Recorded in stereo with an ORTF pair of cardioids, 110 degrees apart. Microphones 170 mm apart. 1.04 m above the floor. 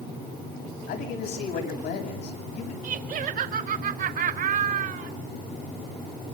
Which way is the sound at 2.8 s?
50° right.